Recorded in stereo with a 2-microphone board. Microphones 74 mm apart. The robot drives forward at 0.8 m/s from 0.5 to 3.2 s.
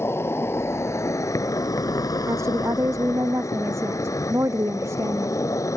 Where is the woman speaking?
40° right (ahead or behind); by 5.4 s 35° right (ahead or behind).